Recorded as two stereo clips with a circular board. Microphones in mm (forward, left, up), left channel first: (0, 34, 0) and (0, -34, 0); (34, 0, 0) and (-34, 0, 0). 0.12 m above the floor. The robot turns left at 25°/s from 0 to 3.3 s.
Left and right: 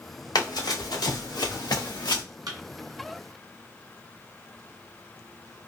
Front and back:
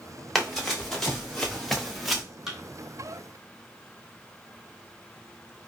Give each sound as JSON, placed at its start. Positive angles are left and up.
{"t": 0.3, "sound": "running footsteps", "azimuth_deg": 90, "distance_m": 2.0}
{"t": 2.5, "sound": "a thud", "azimuth_deg": -95, "distance_m": 1.0}